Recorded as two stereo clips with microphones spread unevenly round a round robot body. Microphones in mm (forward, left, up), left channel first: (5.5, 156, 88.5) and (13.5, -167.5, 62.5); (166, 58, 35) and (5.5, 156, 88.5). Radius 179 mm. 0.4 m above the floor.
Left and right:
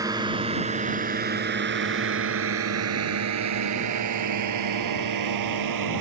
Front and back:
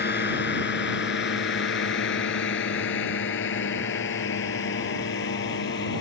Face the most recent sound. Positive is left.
turn(degrees=-65)